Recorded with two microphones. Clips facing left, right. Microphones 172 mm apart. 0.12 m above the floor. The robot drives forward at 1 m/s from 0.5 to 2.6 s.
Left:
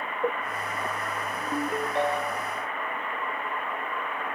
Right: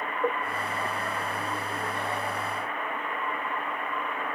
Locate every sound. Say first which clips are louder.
1.5 s a ringtone: left 6 dB; 65° left (ahead or behind), 3.5 m; by 2.5 s 80° left, 3 m